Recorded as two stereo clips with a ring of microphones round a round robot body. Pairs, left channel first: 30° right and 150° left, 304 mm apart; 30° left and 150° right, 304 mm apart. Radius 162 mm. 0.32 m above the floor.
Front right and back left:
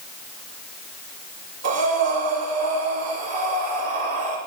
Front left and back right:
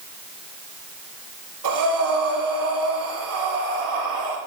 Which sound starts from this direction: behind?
Breathing, at 1.6 s.